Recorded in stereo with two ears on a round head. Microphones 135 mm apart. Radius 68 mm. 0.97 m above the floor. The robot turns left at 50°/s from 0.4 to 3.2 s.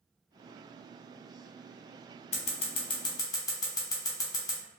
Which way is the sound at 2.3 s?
45° left (ahead or behind).